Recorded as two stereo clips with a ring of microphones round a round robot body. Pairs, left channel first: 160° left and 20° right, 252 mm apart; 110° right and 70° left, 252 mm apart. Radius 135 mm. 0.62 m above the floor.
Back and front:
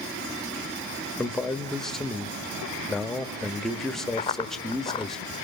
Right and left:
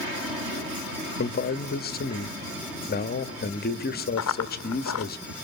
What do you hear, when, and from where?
1.2 s a man speaking: 115° right, 1.3 m
4.2 s running footsteps: 135° right, 0.9 m